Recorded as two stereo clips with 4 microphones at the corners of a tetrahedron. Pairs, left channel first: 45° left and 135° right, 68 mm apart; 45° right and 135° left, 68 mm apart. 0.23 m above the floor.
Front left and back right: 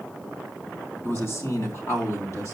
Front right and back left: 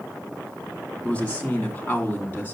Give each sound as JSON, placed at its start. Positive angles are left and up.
{"t": 1.0, "sound": "a man speaking", "azimuth_deg": 20, "distance_m": 2.0}